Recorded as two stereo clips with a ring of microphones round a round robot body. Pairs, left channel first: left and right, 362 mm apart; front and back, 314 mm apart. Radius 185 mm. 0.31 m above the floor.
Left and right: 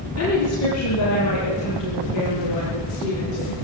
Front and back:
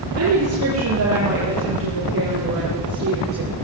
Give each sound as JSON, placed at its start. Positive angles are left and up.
{"t": 0.2, "sound": "a woman speaking", "azimuth_deg": 140, "distance_m": 9.5}